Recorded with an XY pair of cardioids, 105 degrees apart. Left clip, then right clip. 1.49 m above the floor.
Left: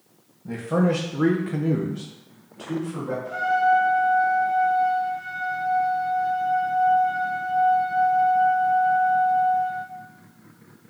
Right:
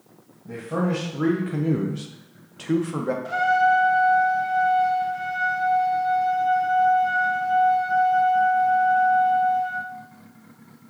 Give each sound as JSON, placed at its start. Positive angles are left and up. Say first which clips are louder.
{"t": 0.5, "sound": "a man speaking", "louder": "left 3 dB", "azimuth_deg": 45, "distance_m": 0.9}
{"t": 3.2, "sound": "a trumpet", "louder": "right 1 dB", "azimuth_deg": -65, "distance_m": 0.5}